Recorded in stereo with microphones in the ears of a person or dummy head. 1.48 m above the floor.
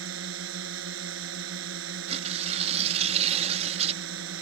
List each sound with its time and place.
0.0 s a drone: 70° right (ahead or behind)
2.1 s tearing paper: 40° right (ahead or behind)